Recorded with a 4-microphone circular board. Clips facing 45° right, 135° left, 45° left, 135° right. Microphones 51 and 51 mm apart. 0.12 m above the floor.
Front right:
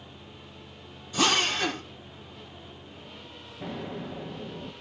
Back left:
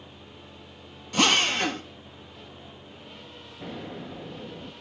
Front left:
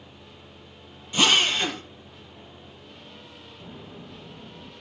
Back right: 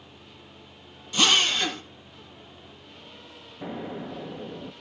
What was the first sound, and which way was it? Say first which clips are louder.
A drill: back left 2 dB, front left 1 dB; 115° left.